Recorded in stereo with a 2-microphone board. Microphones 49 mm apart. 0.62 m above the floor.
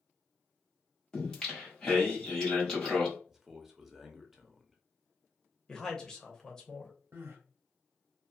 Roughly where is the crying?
Right.